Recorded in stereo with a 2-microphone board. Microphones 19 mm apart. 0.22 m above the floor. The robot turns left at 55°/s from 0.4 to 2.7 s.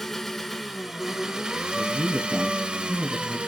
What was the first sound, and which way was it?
An engine running, 10° left.